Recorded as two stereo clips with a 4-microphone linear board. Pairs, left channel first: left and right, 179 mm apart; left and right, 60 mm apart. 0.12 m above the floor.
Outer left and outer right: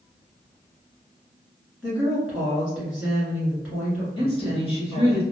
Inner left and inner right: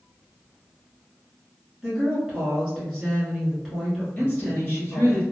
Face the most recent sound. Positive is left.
turn(degrees=30)  # may be behind; listen again after turning